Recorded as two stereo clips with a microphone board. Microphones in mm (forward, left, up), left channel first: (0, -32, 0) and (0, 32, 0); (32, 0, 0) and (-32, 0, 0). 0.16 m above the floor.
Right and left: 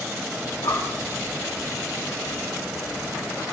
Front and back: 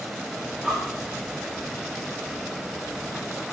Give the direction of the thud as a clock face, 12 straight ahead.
I don't hear a thud.